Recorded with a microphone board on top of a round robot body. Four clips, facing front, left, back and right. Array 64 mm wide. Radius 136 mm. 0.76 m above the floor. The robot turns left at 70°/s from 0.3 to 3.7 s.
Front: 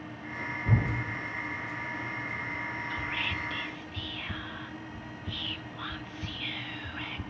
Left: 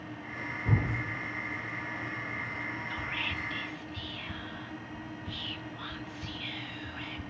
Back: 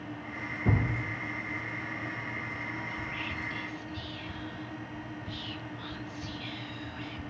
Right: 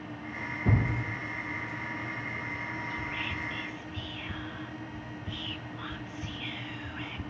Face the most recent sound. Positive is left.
turn(degrees=-5)